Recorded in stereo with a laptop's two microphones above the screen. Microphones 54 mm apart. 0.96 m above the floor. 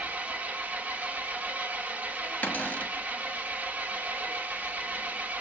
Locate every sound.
0.0 s an engine running: 30° right (ahead or behind), 1.0 m
2.4 s a cupboard door: 30° left (ahead or behind), 0.9 m